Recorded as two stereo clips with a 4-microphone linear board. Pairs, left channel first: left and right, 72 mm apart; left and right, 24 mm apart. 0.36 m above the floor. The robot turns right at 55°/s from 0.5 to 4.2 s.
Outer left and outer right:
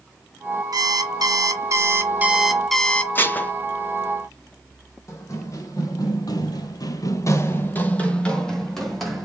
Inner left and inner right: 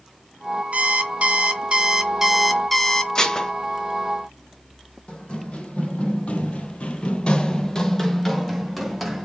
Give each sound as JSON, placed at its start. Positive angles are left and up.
{"t": 0.7, "sound": "an alarm clock", "azimuth_deg": -105, "distance_m": 0.6}
{"t": 3.1, "sound": "dishes clattering", "side_deg": 30, "distance_m": 0.6}
{"t": 5.1, "sound": "running footsteps", "side_deg": 45, "distance_m": 1.1}